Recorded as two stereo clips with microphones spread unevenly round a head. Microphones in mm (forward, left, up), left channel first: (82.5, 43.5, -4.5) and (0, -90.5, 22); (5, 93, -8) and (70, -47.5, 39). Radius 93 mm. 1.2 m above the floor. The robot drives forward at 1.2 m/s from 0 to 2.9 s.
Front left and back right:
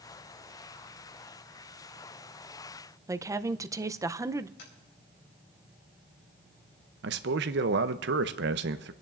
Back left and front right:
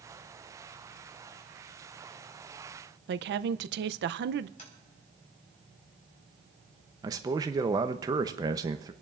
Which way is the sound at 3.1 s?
50° right.